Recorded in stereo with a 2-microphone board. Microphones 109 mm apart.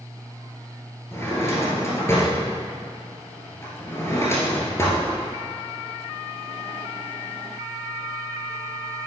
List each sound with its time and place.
1.1 s a drawer: 25° left (ahead or behind), 1.8 m